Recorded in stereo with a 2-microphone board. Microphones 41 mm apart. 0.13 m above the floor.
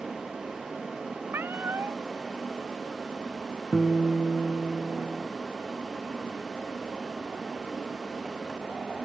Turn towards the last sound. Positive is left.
turn(degrees=15)  # may be behind; listen again after turning